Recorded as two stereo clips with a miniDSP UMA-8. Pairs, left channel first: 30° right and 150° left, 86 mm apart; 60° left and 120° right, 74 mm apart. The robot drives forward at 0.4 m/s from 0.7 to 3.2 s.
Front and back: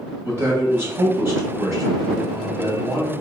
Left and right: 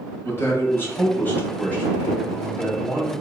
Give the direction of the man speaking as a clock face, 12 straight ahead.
9 o'clock.